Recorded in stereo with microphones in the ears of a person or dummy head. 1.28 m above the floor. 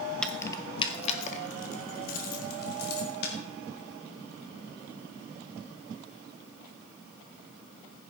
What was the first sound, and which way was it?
Keys jangling, 5° left (ahead or behind).